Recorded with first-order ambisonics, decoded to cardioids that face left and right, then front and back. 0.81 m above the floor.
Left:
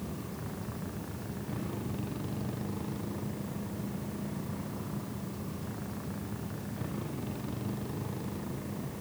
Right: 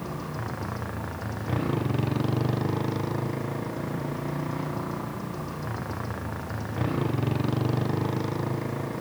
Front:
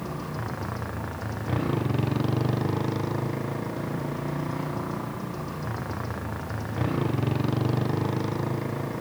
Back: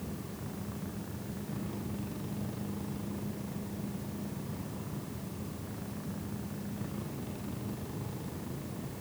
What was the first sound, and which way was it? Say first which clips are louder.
A motorcycle: right 8 dB, front 10 dB; 40° right.